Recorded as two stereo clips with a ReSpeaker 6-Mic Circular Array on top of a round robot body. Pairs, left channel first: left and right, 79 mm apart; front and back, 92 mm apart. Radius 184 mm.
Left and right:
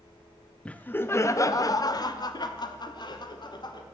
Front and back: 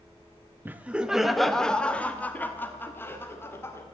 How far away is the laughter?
About 0.9 m.